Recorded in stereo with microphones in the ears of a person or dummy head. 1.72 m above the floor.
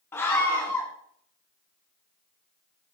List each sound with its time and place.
0.1 s a scream: 15° left (ahead or behind), 1.6 m